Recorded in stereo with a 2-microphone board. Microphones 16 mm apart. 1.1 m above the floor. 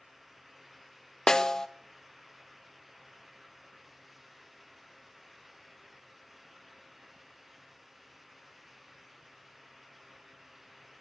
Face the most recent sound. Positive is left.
turn(degrees=40)  # may be behind; listen again after turning